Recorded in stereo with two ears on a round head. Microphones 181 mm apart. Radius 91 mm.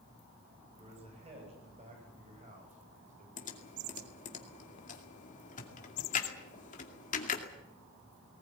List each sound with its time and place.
0.7 s a man speaking: 30° right (ahead or behind), 9.5 m; by 3.3 s 40° right (ahead or behind), 8 m
3.4 s typing on a keyboard: 35° left (ahead or behind), 2.5 m